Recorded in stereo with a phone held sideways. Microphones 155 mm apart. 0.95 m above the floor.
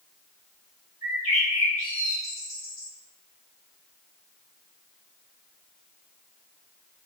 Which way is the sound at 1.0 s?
55° left (ahead or behind).